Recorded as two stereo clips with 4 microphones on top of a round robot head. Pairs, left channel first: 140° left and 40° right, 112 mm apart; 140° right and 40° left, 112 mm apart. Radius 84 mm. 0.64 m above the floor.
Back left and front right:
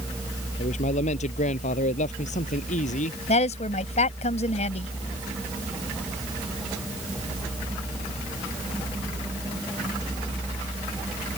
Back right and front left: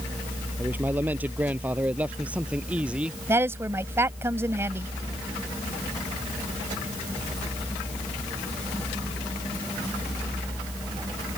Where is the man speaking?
115° left; by 3.2 s 120° left.